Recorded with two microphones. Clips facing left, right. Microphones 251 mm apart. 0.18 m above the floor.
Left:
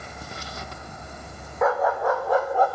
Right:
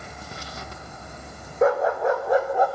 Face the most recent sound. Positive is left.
turn(degrees=-15)  # may be behind; listen again after turning